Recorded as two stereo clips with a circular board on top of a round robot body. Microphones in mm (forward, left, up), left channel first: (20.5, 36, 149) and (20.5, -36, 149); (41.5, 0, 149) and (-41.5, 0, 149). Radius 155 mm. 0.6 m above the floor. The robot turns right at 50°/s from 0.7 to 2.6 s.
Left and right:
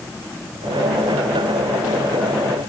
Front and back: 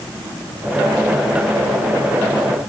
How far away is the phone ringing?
I don't hear a phone ringing.